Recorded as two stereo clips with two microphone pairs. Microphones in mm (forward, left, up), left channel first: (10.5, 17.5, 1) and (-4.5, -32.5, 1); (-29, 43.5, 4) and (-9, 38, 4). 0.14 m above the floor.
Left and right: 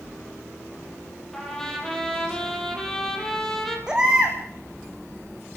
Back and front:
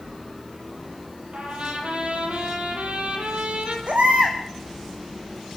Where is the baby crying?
35° right, 3.5 m.